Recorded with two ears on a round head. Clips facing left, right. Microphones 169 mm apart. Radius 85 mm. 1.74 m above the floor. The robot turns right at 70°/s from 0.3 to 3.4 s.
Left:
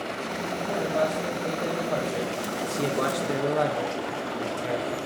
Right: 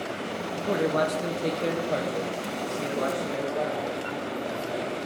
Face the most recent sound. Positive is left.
turn(degrees=90)